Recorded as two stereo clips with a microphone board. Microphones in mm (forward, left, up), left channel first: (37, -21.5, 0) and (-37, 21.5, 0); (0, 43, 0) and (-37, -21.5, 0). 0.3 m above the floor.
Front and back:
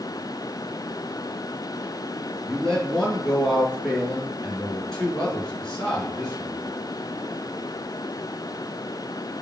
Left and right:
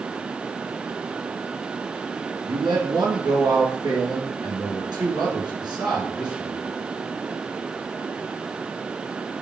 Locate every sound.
2.5 s a man speaking: 115° right, 3.5 m